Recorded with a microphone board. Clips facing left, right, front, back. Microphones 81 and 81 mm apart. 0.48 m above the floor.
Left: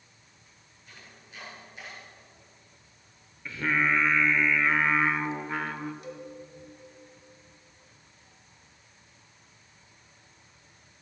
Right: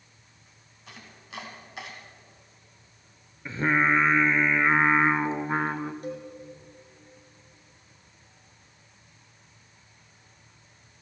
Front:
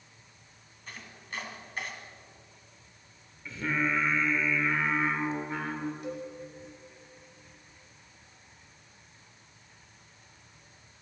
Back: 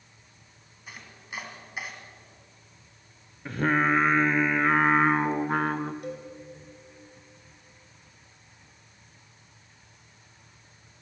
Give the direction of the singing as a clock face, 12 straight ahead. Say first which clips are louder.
Right 3 dB, back 7 dB; 5 o'clock.